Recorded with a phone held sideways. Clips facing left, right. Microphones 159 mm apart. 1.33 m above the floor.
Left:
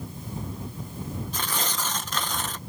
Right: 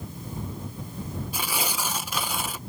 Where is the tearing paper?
10° right (ahead or behind).